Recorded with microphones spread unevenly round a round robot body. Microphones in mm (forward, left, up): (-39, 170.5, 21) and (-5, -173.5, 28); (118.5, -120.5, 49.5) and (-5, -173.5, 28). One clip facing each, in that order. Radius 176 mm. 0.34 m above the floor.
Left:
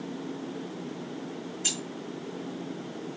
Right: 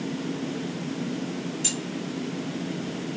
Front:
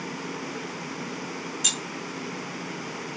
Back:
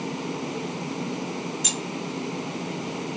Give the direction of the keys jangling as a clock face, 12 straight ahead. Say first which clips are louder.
Right 6 dB, back 4 dB; 2 o'clock.